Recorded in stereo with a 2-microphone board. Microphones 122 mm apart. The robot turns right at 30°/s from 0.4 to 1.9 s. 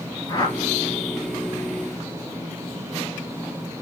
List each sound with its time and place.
0.3 s a whoosh: 30° left (ahead or behind), 1.9 m; by 0.7 s 35° left (ahead or behind), 1.9 m